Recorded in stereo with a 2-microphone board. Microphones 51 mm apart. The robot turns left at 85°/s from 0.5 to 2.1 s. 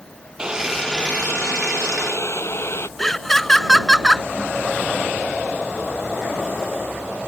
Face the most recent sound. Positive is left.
turn(degrees=5)  # may be behind; listen again after turning